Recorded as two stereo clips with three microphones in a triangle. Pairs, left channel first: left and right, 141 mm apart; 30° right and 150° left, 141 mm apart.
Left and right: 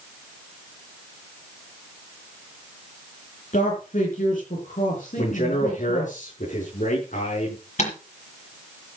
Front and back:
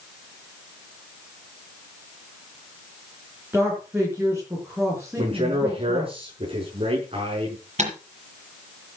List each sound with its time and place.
3.5 s a man speaking: 75° left, 5.5 m
5.2 s a man speaking: 105° left, 5.5 m
7.8 s typing on a keyboard: 120° left, 6.5 m